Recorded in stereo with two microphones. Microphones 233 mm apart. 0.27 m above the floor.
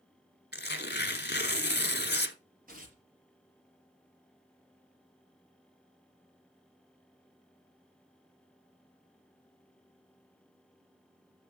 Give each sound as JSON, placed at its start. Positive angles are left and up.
{"t": 0.5, "sound": "tearing paper", "side_deg": 45, "distance_m": 1.0}
{"t": 2.7, "sound": "tearing paper", "side_deg": -35, "distance_m": 5.0}